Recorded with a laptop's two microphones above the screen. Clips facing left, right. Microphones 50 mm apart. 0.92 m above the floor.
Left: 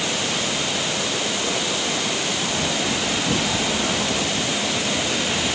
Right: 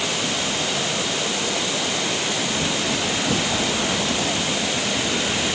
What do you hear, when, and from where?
Only background noise.